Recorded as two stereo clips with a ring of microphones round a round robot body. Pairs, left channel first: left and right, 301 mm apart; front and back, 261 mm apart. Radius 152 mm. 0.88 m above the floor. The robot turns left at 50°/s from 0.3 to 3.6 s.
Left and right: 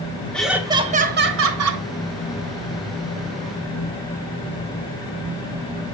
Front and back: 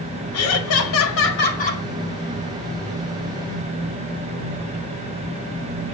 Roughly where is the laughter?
Ahead.